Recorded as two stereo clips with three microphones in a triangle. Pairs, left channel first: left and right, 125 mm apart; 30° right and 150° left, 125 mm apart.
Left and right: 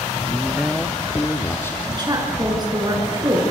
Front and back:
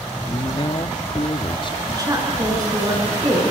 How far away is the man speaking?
About 0.9 m.